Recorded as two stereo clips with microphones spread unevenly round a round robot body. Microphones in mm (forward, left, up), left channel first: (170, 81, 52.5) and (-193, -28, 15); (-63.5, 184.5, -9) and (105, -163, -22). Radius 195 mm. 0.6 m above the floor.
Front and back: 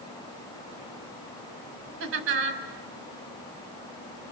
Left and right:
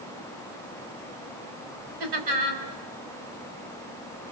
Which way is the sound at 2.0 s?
105° right.